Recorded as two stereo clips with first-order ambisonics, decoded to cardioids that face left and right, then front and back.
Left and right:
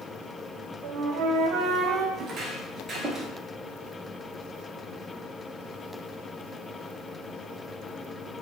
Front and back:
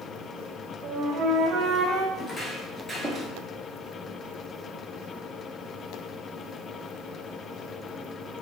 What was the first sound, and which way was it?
A flute, 135° right.